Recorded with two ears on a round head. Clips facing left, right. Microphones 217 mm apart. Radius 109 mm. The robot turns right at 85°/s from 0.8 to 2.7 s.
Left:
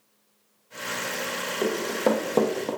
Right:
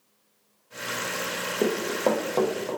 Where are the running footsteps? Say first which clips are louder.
Even; 35° right (ahead or behind), 0.6 m; by 2.7 s 50° left (ahead or behind), 0.6 m.